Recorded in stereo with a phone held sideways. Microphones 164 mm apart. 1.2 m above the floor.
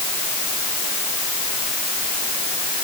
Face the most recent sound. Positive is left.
No sound to turn to.